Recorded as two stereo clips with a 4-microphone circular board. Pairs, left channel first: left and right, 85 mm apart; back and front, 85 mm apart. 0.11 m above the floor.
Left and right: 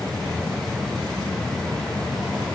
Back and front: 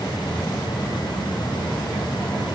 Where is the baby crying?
No baby crying in this recording.